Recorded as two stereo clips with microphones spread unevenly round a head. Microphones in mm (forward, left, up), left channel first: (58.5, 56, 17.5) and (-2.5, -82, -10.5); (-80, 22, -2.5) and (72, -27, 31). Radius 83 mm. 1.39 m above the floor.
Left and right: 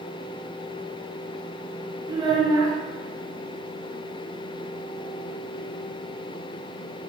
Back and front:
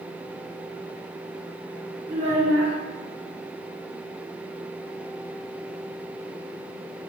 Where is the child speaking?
45° right, 0.5 m.